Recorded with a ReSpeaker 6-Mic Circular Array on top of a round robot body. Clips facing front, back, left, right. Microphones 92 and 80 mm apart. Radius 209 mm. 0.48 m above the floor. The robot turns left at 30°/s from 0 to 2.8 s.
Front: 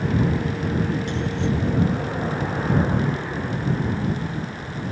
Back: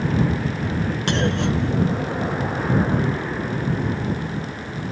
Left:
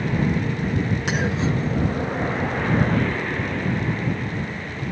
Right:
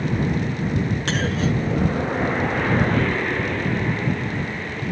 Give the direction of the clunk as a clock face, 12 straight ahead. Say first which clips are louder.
Back 3 dB, right 1 dB; 6 o'clock.